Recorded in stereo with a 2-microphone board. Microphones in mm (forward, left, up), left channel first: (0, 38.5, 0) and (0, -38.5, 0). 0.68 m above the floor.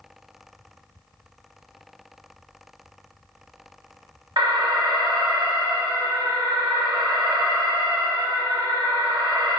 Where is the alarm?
70° right (ahead or behind), 0.5 m.